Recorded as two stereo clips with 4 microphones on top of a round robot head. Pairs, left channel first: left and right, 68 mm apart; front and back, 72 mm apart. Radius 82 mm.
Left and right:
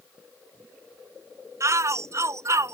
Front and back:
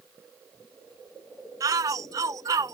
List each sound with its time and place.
1.6 s a shout: 135° right